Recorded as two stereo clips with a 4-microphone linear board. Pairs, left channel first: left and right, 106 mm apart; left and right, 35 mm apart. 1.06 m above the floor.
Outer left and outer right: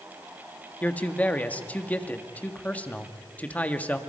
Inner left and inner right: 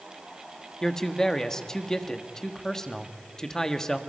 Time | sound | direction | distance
0.8 | a man speaking | 15° left (ahead or behind) | 1.6 m